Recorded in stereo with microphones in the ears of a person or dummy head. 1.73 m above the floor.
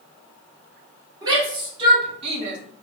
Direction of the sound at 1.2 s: 25° right (ahead or behind).